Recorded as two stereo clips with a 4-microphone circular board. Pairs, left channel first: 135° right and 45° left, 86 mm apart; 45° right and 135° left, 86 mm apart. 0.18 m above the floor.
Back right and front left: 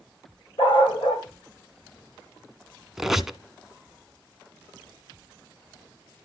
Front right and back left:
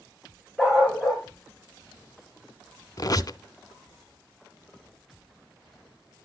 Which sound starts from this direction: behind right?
A dog barking, at 0.6 s.